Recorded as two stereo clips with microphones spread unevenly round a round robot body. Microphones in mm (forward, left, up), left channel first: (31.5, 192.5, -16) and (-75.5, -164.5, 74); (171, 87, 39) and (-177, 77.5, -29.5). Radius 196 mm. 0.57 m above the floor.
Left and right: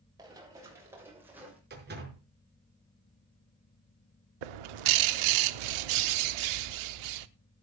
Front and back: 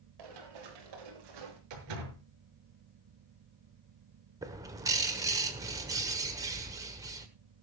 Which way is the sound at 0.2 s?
175° left.